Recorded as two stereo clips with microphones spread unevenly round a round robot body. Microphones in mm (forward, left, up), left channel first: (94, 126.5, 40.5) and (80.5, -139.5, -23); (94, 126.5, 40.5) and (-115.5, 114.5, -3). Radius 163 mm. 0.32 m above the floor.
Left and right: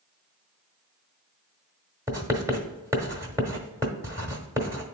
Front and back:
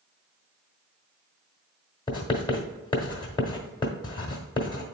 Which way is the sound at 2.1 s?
70° right.